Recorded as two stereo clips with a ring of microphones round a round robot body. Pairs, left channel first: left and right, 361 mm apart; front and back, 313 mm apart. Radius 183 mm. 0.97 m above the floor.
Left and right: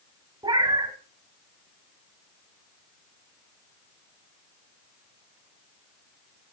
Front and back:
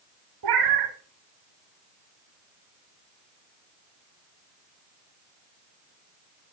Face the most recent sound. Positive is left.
turn(degrees=-170)